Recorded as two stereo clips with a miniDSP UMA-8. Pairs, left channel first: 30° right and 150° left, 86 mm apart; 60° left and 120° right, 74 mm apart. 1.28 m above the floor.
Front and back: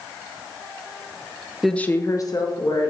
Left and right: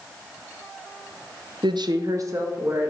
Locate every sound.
1.6 s a woman speaking: 125° right, 0.6 m; by 2.9 s 65° right, 2 m